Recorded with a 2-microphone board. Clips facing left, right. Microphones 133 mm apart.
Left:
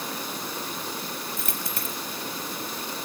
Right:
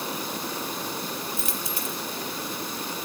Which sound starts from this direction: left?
A dropped coin, at 1.4 s.